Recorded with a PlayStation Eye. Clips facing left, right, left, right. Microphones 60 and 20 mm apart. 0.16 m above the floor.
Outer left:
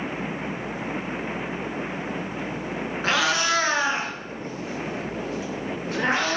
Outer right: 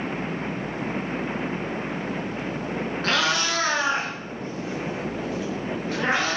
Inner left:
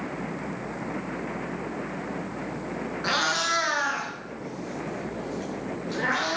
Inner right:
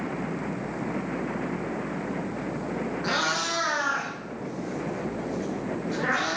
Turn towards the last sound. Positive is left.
turn(degrees=30)  # may be behind; listen again after turning